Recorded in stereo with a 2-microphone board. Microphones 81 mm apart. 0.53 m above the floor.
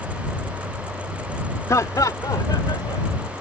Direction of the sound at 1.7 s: 45° left (ahead or behind).